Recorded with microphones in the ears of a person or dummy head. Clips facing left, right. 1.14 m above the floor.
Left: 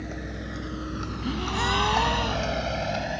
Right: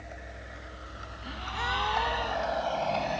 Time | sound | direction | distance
0.0 | a vehicle | 75° left (ahead or behind) | ?
1.2 | a gasp | 60° left (ahead or behind) | ?